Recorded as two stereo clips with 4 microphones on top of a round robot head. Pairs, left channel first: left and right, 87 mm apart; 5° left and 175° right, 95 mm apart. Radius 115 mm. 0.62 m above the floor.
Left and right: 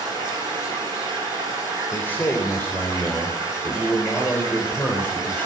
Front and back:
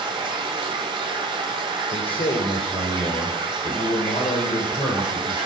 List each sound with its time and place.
0.0 s running water: 150° left, 2 m
1.9 s a man speaking: 25° left, 3 m